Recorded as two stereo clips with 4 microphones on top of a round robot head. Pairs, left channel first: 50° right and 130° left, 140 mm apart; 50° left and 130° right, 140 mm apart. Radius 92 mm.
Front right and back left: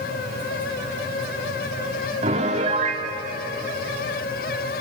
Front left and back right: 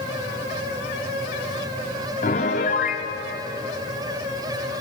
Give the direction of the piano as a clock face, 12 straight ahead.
9 o'clock.